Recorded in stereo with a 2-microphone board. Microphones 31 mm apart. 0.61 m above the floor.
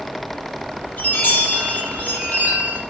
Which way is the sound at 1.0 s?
80° left.